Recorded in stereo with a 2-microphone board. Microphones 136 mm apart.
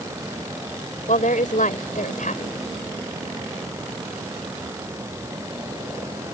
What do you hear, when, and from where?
1.1 s a woman speaking: 75° left (ahead or behind)